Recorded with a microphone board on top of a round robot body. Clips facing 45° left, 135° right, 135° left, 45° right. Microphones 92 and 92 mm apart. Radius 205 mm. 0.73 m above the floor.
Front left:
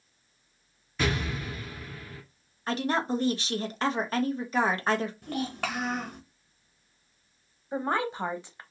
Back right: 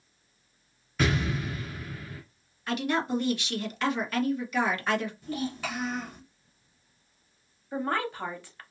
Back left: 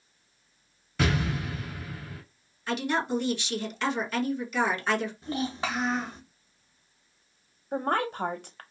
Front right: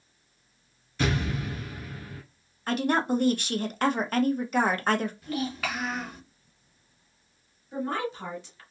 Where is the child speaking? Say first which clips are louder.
Front left 1 dB, even; 70° left, 1.0 m.